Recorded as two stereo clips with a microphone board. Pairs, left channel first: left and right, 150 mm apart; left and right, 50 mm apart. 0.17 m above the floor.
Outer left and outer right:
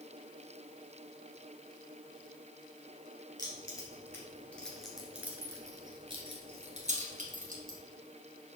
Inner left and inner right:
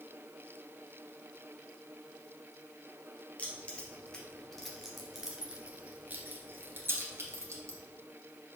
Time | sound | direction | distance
3.4 | keys jangling | 25° left (ahead or behind) | 2.0 m